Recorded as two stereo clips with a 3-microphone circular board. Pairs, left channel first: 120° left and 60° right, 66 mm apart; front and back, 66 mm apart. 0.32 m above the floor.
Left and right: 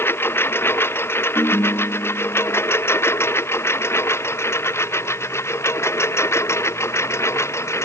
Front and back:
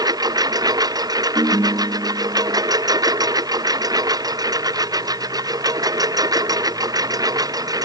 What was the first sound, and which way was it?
A lawn mower, 175° left.